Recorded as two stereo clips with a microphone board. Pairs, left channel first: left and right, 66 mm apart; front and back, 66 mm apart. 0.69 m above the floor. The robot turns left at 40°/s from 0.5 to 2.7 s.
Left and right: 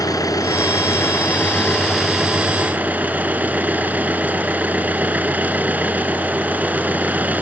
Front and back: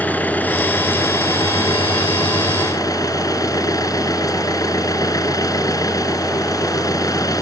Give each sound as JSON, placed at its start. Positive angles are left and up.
{"t": 0.0, "sound": "an engine running", "azimuth_deg": 60}